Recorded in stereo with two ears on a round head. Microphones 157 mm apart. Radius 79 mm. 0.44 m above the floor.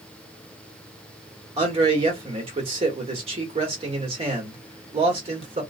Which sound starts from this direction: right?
A man speaking, at 1.6 s.